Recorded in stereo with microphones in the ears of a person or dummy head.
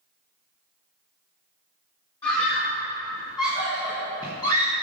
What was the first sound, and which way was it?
A scream, 20° left (ahead or behind).